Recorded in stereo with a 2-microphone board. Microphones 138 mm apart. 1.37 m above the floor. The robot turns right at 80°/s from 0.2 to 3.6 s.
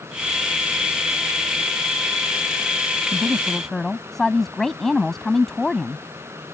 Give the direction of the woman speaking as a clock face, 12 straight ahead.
1 o'clock.